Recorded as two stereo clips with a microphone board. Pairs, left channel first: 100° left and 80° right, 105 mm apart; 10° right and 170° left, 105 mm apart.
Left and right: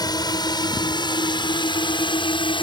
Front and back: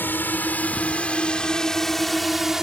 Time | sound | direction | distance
0.0 | a drone | 60° left | ?